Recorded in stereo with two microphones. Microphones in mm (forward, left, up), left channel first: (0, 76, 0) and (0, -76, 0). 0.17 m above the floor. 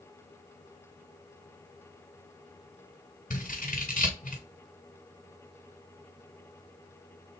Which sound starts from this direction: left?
Scissors, at 3.3 s.